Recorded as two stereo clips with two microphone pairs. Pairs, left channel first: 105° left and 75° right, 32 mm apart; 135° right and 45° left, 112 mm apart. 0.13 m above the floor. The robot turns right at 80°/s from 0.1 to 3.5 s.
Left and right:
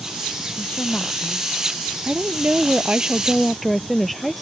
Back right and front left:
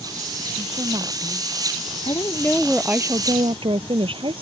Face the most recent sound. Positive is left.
turn(degrees=20)